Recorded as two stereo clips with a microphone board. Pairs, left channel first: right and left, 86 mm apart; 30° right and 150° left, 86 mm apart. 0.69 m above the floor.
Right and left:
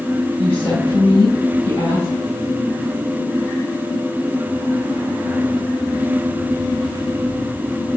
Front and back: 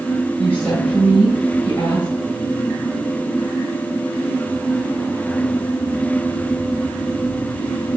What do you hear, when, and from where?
0.4 s a woman speaking: 100° right, 3 m